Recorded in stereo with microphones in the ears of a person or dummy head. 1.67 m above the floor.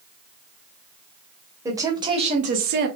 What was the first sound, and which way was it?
A woman speaking, 10° right (ahead or behind).